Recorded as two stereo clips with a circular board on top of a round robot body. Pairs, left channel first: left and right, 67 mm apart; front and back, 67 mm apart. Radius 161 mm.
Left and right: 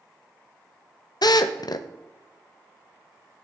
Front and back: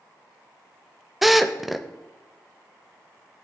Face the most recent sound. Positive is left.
turn(degrees=95)